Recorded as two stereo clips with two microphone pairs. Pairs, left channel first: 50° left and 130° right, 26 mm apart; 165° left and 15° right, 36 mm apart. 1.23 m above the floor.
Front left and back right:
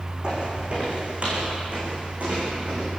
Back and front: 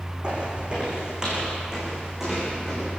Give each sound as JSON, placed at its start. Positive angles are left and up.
{"t": 0.2, "sound": "footsteps", "azimuth_deg": -75, "distance_m": 5.5}